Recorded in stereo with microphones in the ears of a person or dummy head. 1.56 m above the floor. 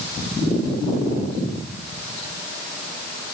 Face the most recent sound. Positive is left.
No sound to turn to.